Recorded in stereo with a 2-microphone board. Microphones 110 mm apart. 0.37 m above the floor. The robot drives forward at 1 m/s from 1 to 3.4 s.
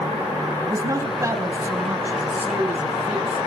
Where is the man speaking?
30° right (ahead or behind), 2.5 m; by 3.5 s 15° right (ahead or behind), 4.5 m.